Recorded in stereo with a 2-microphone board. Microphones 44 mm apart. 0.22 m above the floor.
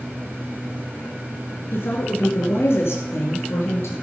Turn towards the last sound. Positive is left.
turn(degrees=75)  # may be behind; listen again after turning